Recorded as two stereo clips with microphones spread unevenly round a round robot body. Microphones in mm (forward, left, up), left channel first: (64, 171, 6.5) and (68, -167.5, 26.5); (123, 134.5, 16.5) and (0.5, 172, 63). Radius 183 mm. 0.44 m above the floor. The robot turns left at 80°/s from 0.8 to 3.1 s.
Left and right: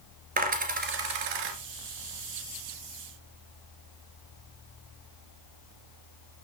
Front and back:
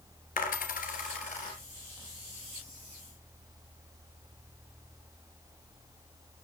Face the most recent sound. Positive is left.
turn(degrees=150)